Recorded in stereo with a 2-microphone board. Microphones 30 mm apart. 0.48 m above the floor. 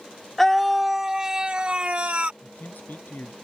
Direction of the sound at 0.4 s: 10° left (ahead or behind).